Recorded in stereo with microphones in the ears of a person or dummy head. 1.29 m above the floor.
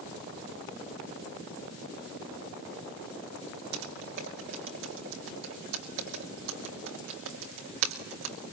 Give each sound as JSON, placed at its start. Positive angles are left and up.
{"t": 3.7, "sound": "typing on a keyboard", "side_deg": -65, "distance_m": 2.5}